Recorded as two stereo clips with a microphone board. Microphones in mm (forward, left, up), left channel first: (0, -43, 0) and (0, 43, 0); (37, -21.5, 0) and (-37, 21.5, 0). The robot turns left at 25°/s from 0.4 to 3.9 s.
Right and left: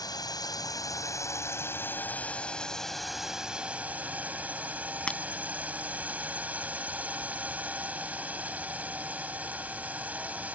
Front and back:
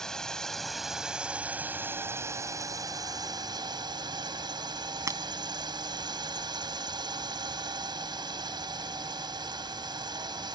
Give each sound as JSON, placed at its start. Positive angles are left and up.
{"t": 0.0, "sound": "a drone", "azimuth_deg": -110}
{"t": 5.1, "sound": "breaking glass", "azimuth_deg": -165}